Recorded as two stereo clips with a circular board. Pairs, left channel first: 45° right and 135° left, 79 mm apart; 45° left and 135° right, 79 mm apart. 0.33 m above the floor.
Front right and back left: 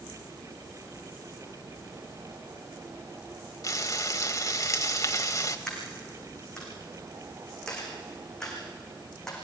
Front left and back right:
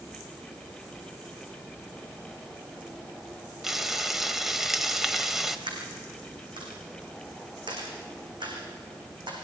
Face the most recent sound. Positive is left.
turn(degrees=-130)